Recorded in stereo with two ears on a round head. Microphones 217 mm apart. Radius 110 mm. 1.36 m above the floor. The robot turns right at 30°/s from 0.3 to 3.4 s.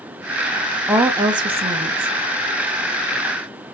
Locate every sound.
0.9 s a woman speaking: 170° right, 0.5 m; by 2.1 s 130° right, 0.5 m